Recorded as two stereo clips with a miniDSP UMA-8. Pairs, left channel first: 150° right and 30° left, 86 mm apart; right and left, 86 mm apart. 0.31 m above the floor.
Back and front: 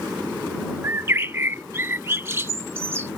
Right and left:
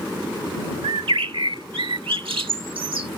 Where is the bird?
90° left.